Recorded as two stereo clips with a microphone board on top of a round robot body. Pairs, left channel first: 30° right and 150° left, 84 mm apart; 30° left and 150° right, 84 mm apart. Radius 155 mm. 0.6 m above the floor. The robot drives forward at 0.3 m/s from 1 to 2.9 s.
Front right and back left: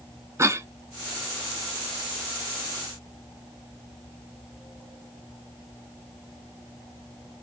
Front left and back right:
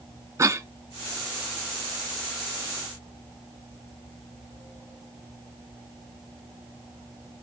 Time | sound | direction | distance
0.4 | a cough | straight behind | 1.1 m